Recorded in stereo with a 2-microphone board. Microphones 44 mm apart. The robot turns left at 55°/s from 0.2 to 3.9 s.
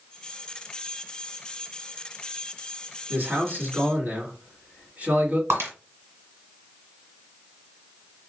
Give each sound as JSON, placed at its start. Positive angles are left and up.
{"t": 3.1, "sound": "a man speaking", "azimuth_deg": -80, "distance_m": 1.7}
{"t": 5.5, "sound": "breaking glass", "side_deg": -70, "distance_m": 1.7}